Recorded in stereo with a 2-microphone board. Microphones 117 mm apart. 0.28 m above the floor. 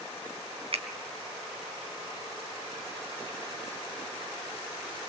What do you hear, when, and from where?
0.7 s a finger snap: 60° right (ahead or behind), 2.5 m